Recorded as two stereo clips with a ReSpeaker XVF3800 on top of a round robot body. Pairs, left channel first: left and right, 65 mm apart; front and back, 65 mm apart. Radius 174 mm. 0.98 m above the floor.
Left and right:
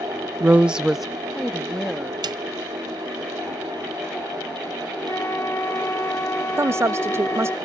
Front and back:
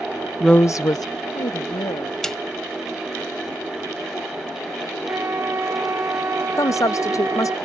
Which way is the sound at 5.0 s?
135° left.